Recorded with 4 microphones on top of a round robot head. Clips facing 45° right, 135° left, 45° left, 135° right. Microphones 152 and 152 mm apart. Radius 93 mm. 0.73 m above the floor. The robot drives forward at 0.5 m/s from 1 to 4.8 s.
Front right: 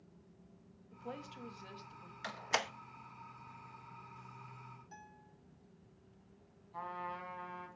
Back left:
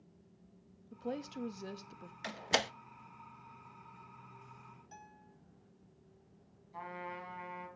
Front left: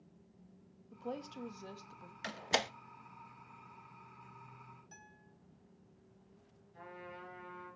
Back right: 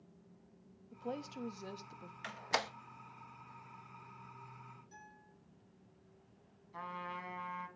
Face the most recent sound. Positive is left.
turn(degrees=-150)